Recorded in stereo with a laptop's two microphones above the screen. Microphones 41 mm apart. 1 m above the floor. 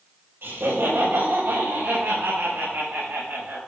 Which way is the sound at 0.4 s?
75° right (ahead or behind).